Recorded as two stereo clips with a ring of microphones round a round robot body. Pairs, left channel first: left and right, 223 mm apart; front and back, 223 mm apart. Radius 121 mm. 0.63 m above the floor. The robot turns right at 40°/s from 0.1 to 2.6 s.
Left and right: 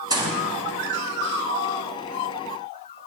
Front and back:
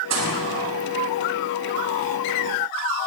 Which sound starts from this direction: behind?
A gunshot, at 0.1 s.